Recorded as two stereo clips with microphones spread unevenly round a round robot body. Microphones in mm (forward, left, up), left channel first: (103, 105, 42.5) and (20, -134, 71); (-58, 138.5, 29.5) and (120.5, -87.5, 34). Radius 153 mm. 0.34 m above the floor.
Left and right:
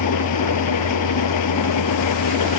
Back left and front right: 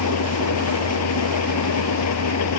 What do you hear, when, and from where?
0.0 s an engine running: 95° left